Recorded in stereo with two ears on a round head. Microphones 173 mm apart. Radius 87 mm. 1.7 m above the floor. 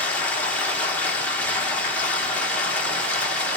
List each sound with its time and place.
0.0 s running water: 10° left (ahead or behind), 0.9 m